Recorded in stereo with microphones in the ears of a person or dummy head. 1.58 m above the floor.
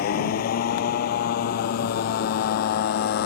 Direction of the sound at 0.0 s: 60° left (ahead or behind).